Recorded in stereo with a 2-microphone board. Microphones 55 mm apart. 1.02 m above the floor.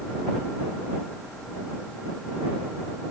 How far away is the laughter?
No laughter in this recording.